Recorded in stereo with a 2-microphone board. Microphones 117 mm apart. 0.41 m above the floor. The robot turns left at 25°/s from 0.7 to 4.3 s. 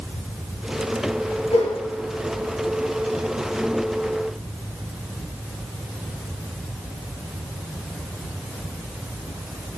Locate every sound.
1.5 s a whoosh: 65° left (ahead or behind), 1.2 m; by 1.7 s 70° left (ahead or behind), 1.2 m